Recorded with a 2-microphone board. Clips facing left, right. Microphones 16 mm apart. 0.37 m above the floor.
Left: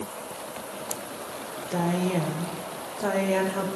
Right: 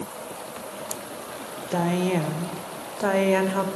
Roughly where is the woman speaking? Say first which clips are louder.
Right 2 dB; right.